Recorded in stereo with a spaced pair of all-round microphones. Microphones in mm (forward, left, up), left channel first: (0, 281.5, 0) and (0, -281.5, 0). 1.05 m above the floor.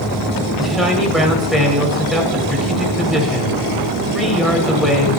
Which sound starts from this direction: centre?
A man speaking, at 0.6 s.